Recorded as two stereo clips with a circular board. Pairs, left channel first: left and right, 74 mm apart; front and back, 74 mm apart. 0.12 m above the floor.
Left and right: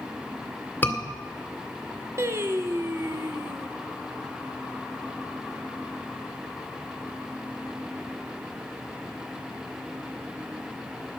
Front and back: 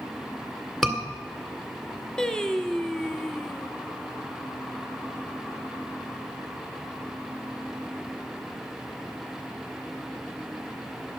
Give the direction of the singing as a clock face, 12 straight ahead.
3 o'clock.